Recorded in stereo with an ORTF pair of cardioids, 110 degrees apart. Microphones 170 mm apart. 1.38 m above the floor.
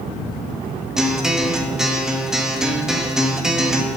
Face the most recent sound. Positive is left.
turn(degrees=-5)